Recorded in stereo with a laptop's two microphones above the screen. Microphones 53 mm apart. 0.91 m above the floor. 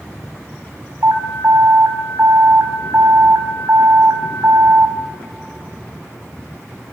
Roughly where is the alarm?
Right.